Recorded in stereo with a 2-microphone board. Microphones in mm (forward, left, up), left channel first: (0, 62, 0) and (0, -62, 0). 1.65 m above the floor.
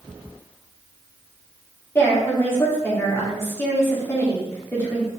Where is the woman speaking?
20° left (ahead or behind), 3.5 m.